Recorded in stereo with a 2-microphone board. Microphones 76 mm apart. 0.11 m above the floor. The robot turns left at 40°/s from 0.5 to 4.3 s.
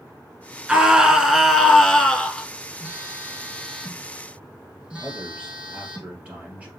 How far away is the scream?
About 1.1 m.